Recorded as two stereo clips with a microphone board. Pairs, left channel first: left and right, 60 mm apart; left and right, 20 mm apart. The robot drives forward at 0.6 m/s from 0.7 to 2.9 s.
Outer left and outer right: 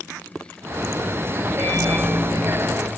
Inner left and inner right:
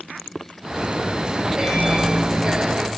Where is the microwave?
15° left (ahead or behind), 3 m; by 3.0 s 20° left (ahead or behind), 2 m.